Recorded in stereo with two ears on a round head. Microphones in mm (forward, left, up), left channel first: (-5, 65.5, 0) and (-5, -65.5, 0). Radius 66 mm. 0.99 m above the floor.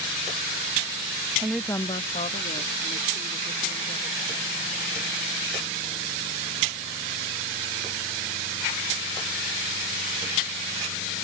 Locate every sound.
1.4 s a woman speaking: 20° right (ahead or behind); by 4.9 s 65° left (ahead or behind)